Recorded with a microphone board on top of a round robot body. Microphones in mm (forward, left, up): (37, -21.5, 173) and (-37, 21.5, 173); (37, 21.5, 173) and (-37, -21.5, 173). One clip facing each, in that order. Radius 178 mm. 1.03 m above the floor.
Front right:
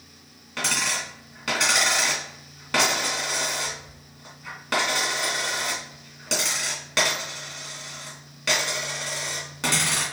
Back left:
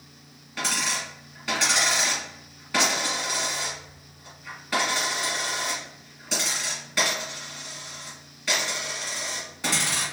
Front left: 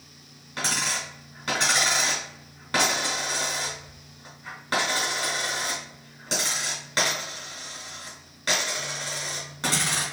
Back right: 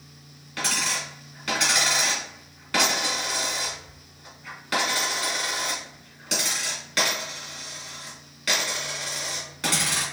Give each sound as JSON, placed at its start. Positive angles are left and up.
{"t": 0.6, "sound": "a dropped coin", "azimuth_deg": -25, "distance_m": 1.2}